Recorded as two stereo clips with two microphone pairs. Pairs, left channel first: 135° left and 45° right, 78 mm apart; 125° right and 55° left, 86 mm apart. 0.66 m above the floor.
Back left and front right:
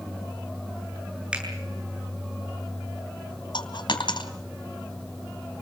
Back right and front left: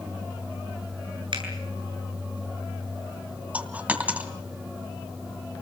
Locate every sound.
1.3 s a finger snap: 30° left, 8 m
3.5 s a dropped coin: 125° left, 2.5 m